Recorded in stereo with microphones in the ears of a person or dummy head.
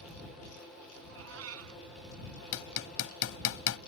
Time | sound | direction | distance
1.1 | a cat meowing | 85° right | ?
2.5 | hammering | 75° left (ahead or behind) | ?